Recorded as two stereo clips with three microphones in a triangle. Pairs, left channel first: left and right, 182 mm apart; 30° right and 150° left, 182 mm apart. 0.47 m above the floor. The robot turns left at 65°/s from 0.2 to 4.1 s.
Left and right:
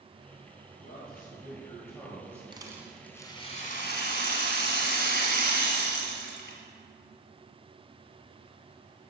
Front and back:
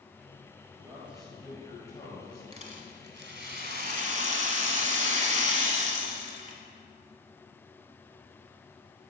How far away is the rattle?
About 1.4 m.